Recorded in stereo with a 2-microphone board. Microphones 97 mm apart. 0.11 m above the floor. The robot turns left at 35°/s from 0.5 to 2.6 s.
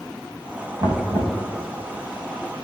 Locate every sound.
0.8 s knocking: 60° right (ahead or behind), 4 m; by 1.4 s 80° right, 4 m